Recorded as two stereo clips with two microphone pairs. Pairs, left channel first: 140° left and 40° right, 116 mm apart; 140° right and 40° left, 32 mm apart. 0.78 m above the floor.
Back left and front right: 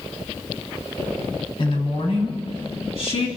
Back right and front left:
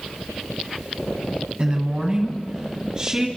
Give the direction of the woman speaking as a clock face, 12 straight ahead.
9 o'clock.